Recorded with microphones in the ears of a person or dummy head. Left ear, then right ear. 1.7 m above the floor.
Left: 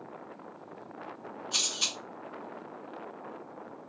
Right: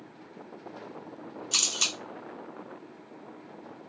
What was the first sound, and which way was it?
A camera shutter, 35° right (ahead or behind).